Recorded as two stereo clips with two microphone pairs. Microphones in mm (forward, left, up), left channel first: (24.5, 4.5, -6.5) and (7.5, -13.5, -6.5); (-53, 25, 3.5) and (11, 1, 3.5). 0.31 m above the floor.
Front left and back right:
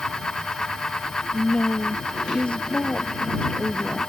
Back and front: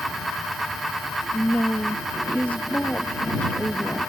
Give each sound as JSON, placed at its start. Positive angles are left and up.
{"t": 1.3, "sound": "a woman speaking", "azimuth_deg": 90}